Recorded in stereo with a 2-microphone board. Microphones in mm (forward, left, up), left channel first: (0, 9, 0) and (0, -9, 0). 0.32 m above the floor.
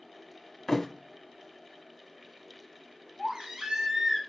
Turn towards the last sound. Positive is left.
turn(degrees=-50)  # may be behind; listen again after turning